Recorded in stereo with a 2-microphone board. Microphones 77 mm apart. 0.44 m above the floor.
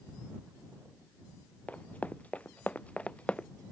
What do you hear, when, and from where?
1.7 s running footsteps: 20° left (ahead or behind); by 3.5 s 15° left (ahead or behind)